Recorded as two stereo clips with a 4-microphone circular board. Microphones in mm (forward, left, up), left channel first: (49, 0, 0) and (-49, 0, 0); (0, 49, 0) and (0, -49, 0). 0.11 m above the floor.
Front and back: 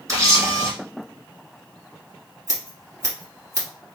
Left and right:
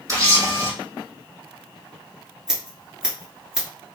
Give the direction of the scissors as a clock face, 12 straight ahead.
6 o'clock.